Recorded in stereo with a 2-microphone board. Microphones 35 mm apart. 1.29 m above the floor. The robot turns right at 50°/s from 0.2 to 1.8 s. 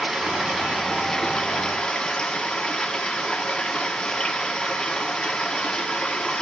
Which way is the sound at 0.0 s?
30° right.